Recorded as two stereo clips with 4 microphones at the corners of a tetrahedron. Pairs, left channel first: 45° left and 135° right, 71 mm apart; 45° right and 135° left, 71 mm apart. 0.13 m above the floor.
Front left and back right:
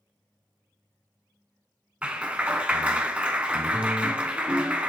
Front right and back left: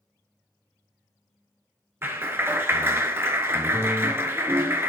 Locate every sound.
2.0 s a clap: 160° left, 1.2 m